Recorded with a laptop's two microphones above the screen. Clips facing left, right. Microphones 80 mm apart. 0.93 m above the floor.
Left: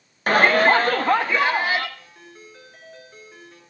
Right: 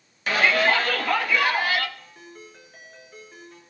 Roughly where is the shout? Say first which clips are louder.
Left 5 dB; left.